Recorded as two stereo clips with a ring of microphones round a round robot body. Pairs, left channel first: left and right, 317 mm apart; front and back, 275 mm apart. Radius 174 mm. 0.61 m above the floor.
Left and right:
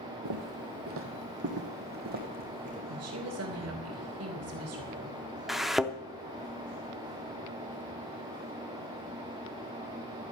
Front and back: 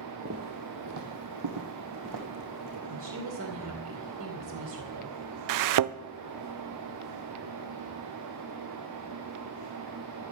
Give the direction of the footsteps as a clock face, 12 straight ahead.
4 o'clock.